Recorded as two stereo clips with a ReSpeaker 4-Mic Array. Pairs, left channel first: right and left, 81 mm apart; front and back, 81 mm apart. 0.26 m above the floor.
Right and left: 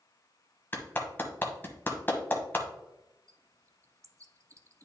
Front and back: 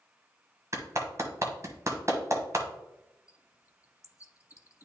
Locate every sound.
0.7 s a clap: 145° right, 1.2 m
3.3 s a bird: 45° left, 0.6 m